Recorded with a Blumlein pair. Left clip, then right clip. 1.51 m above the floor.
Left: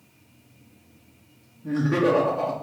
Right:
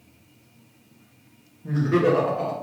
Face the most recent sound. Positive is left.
turn(degrees=5)